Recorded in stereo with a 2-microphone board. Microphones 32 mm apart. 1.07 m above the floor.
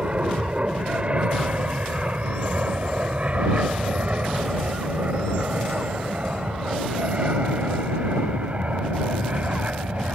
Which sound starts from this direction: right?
An aircraft, at 0.0 s.